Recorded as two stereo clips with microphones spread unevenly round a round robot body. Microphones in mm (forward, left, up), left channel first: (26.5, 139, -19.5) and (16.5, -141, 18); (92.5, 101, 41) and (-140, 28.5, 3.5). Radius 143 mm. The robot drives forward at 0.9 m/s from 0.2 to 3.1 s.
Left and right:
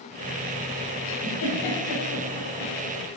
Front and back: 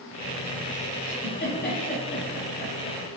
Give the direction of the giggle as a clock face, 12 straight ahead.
10 o'clock.